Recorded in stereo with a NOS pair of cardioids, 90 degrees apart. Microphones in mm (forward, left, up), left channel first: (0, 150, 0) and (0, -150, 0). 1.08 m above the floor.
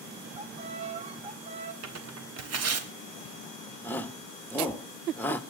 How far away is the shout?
About 1.6 m.